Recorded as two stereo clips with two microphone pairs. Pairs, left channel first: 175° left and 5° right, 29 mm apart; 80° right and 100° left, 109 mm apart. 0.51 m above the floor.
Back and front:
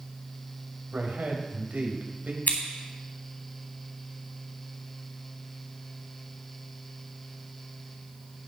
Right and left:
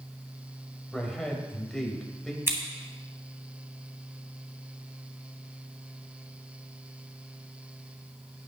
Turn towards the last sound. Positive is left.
turn(degrees=165)